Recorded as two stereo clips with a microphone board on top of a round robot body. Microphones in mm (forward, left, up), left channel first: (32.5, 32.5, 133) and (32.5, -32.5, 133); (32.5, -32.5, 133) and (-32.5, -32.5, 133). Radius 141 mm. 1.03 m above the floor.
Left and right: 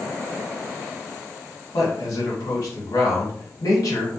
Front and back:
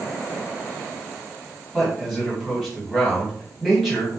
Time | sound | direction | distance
1.7 | a man speaking | 95° left | 2 m